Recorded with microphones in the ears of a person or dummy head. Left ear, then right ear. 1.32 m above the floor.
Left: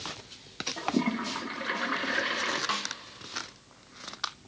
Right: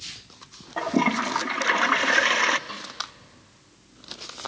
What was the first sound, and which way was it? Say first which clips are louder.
A toilet flushing: right 8 dB; 30° right (ahead or behind).